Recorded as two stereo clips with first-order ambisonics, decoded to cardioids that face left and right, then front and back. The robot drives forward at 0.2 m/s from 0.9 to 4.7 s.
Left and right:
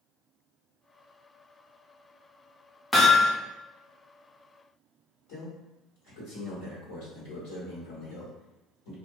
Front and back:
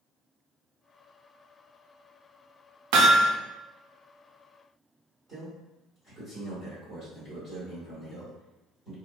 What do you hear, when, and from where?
2.9 s hammering: 175° left, 0.6 m
5.3 s a man speaking: 110° left, 1.5 m